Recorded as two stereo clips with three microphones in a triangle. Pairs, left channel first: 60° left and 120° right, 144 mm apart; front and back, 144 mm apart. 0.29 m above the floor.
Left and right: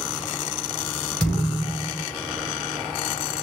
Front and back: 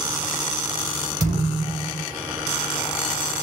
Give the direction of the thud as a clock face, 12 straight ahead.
7 o'clock.